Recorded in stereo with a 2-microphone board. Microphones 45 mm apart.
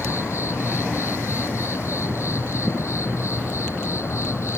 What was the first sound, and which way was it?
An insect, 75° left (ahead or behind).